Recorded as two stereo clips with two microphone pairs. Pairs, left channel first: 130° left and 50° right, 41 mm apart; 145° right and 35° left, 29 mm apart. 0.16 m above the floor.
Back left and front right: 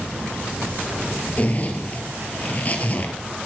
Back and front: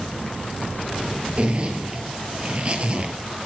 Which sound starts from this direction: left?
A zipper, at 1.4 s.